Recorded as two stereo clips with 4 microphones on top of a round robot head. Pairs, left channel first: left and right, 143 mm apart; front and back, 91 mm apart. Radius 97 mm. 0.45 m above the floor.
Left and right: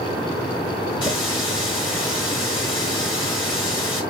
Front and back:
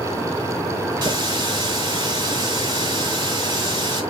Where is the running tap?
155° left, 3.5 m.